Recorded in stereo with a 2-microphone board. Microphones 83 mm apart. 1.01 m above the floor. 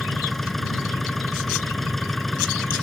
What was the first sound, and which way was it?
An engine running, centre (ahead or behind).